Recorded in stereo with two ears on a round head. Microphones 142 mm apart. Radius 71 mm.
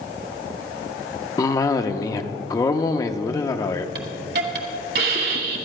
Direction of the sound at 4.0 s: 70° right (ahead or behind).